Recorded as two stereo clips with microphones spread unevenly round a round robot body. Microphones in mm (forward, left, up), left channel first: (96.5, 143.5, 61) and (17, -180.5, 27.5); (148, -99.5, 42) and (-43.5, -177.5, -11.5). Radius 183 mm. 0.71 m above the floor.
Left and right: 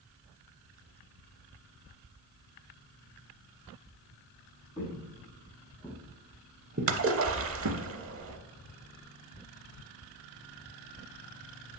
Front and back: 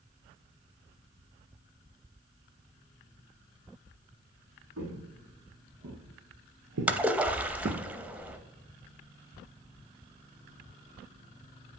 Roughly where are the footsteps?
Behind left.